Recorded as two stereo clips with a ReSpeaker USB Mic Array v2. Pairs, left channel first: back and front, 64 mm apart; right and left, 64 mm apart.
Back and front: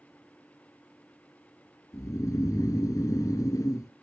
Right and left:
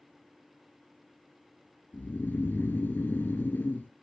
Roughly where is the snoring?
Behind right.